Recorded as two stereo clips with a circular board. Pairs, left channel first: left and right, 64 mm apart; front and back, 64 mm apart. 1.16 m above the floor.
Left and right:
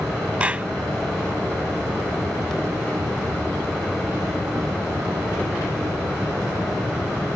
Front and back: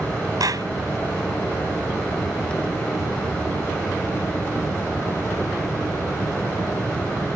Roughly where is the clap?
Behind.